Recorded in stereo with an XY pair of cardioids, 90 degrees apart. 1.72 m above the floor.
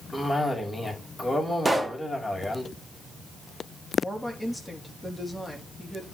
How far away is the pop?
About 1.8 m.